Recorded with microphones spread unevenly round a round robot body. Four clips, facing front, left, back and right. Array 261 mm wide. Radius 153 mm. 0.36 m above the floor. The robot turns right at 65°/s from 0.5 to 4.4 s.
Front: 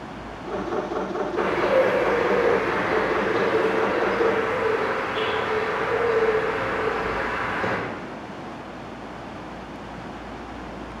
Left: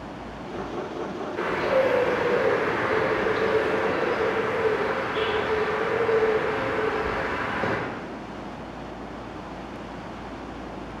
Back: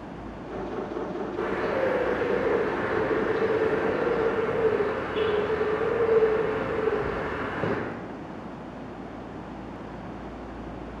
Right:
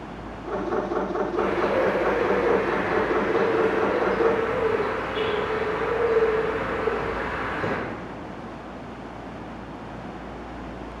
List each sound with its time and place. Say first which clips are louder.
1.4 s a bird: left 1 dB, front 7 dB; 20° right, 2 m; by 7.8 s straight behind, 2 m